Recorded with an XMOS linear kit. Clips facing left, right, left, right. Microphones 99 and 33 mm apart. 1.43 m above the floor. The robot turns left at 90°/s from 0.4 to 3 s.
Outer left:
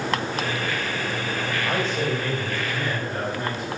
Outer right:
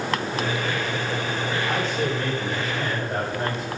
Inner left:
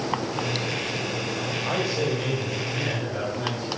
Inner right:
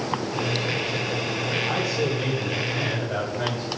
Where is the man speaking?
60° left, 6.5 m; by 3.7 s 60° right, 6.5 m.